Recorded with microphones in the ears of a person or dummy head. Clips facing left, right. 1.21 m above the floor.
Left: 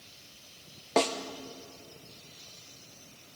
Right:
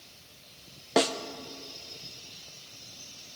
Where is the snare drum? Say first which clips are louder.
Right 2 dB; 10° right (ahead or behind), 1.0 m.